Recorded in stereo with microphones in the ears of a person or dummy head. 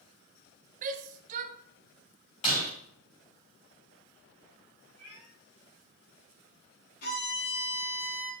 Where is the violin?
55° left (ahead or behind), 3.5 m.